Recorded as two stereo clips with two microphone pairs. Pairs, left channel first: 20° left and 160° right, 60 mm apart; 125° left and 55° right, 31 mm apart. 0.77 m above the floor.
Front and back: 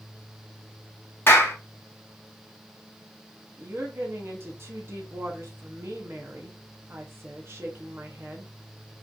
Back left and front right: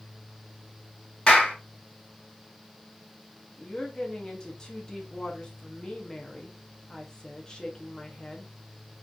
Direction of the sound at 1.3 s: 70° left.